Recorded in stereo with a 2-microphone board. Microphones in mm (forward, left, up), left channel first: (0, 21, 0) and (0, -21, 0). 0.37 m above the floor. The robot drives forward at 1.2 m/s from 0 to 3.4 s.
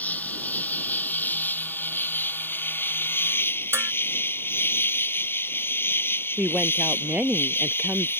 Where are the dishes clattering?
75° right (ahead or behind).